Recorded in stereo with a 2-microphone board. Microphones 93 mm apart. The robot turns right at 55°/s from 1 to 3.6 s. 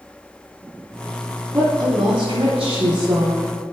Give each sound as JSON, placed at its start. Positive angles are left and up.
{"t": 1.5, "sound": "a woman speaking", "azimuth_deg": -145, "distance_m": 3.5}